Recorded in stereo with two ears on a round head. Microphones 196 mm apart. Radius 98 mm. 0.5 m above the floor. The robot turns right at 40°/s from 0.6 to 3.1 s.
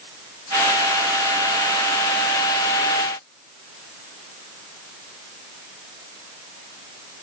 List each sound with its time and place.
Only background noise.